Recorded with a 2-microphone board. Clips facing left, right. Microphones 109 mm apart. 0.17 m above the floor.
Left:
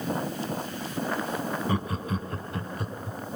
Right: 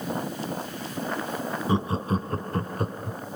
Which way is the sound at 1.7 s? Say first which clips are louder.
Right 4 dB; 25° right (ahead or behind).